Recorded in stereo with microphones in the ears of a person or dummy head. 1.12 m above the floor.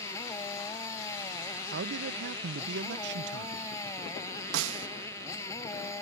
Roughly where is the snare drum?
Right.